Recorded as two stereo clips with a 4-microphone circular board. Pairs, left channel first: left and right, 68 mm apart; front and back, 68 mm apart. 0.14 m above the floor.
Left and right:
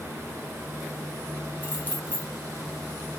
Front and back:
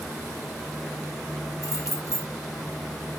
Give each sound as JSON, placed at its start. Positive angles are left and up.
{"t": 1.6, "sound": "keys jangling", "azimuth_deg": 30, "distance_m": 2.5}